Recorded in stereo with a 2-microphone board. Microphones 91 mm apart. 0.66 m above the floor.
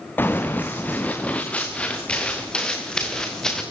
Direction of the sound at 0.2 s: 20° left (ahead or behind).